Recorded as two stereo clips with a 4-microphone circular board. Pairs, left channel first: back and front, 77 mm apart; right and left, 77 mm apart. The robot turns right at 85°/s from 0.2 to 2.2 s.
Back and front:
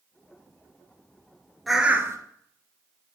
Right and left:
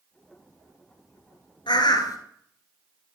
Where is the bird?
90° right, 0.8 m; by 2.2 s 45° right, 0.8 m.